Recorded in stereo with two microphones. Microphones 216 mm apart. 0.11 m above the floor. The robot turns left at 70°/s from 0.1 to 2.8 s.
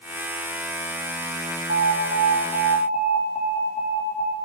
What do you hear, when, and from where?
1.7 s an alarm: 100° right, 3.5 m; by 4.3 s straight behind, 3.5 m